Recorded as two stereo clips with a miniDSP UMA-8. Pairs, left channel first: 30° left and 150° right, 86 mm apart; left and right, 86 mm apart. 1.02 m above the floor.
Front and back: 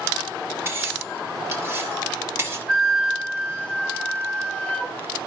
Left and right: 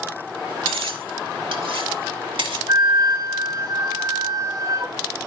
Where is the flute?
45° right, 2.5 m.